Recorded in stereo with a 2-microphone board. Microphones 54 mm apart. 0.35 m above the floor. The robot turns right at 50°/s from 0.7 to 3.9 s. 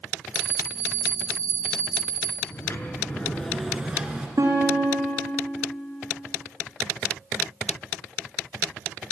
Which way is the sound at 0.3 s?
145° right.